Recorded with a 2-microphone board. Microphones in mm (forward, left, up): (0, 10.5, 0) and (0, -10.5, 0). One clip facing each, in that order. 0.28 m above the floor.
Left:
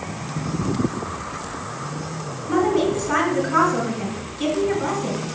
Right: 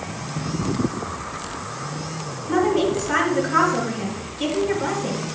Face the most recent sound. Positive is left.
turn(degrees=5)  # may be behind; listen again after turning